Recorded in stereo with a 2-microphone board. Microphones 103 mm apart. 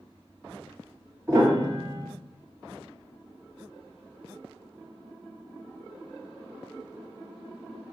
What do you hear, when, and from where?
1.3 s a piano: 25° right (ahead or behind), 1.5 m